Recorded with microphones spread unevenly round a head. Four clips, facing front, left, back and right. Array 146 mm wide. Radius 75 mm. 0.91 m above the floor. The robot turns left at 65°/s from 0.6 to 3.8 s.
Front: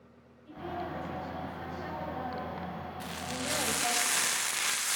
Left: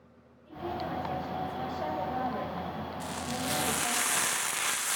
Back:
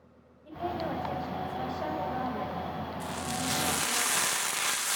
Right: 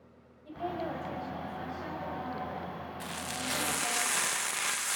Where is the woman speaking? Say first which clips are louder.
Even, back 5 dB; 145° right, 6 m; by 4.0 s 5° left, 6 m.